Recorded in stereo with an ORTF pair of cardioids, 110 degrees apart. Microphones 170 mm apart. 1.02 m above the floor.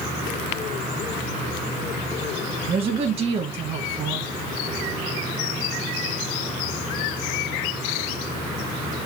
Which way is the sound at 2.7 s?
35° right.